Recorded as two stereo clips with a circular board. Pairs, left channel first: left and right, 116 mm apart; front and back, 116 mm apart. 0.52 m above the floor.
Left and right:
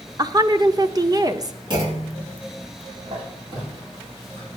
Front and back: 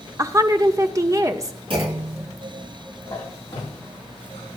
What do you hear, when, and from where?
0.2 s a woman speaking: 130° right, 1.0 m
1.7 s a clunk: 140° right, 4.5 m
3.0 s a squeak: 60° right, 9 m